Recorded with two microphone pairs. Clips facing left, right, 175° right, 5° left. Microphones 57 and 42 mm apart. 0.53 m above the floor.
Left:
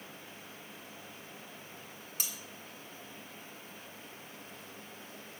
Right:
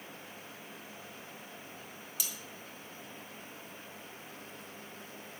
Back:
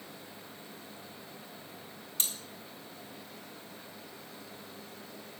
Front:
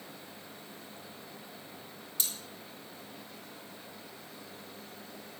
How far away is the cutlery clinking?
About 3.5 m.